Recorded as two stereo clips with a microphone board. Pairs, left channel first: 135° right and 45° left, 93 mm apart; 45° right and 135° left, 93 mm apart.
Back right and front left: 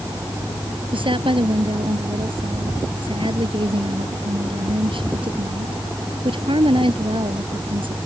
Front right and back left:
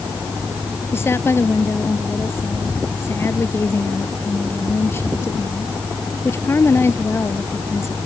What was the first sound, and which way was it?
A woman speaking, 20° left.